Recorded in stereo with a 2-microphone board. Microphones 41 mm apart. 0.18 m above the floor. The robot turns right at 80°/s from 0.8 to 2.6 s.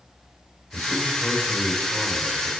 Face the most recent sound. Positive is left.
turn(degrees=-120)